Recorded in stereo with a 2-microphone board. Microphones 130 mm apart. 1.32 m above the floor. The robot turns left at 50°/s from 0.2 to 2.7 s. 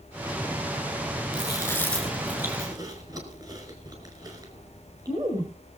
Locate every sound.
1.3 s chewing: 35° left (ahead or behind), 5 m; by 5.5 s 30° right (ahead or behind), 5 m